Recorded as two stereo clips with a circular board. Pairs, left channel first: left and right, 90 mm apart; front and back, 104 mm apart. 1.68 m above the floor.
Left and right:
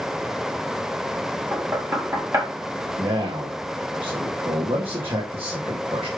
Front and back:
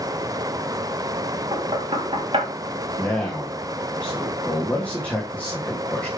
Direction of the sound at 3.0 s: 75° right.